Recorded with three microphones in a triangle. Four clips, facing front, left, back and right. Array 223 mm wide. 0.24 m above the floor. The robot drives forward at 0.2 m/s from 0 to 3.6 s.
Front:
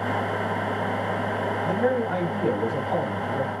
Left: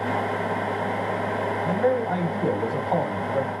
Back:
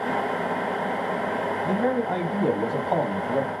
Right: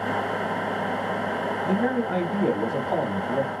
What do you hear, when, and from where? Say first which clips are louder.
1.6 s a man speaking: left 2 dB, front 1 dB; 125° left, 1.7 m; by 3.5 s 140° left, 1.9 m